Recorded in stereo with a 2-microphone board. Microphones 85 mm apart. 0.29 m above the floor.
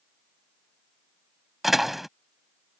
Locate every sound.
1.6 s a door slam: 5° right (ahead or behind)